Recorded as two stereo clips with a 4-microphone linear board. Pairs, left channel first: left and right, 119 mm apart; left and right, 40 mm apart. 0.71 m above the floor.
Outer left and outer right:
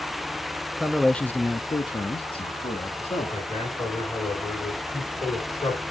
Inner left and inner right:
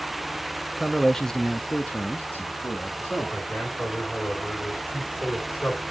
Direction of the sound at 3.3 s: 30° left (ahead or behind).